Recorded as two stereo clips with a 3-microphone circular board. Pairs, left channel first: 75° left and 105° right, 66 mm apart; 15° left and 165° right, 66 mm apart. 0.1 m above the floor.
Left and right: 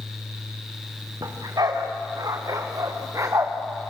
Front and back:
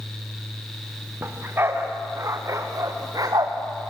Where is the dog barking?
105° right, 3.5 m; by 3.5 s 145° right, 3 m.